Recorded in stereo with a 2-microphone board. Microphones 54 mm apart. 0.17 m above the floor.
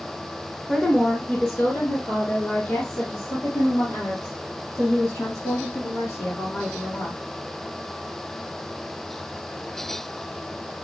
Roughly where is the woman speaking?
Centre.